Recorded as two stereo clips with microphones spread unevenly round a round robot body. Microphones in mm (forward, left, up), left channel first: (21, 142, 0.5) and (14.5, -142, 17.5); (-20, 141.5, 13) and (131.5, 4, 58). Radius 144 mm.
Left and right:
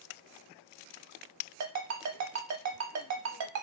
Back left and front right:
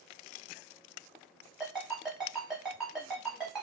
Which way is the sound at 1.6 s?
130° right.